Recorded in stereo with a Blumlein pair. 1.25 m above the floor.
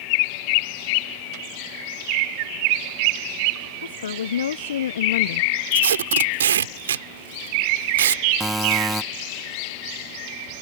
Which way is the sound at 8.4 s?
5° right.